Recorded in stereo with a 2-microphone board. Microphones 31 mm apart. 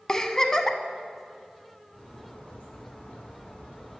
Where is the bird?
40° left (ahead or behind), 2 m.